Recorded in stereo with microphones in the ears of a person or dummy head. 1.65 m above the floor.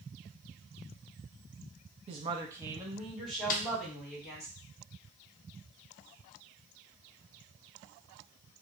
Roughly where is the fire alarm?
No fire alarm in this recording.